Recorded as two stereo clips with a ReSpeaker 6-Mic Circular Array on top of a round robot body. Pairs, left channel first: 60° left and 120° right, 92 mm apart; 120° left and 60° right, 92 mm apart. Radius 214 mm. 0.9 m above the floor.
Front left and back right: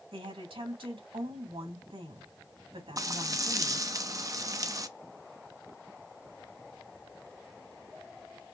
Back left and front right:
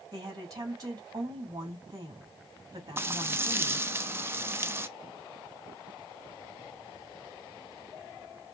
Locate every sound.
0.1 s a woman speaking: 110° right, 3 m
3.0 s frying: 105° right, 0.9 m